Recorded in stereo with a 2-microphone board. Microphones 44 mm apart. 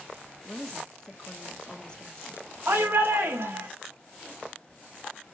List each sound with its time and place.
0.5 s a woman speaking: 15° left (ahead or behind), 1.7 m
2.7 s a shout: 50° right (ahead or behind), 1.4 m